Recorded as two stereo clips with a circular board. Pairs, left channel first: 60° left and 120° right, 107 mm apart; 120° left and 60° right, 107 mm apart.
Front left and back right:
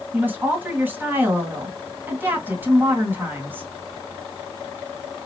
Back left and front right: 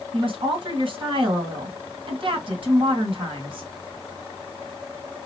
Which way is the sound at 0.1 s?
50° right.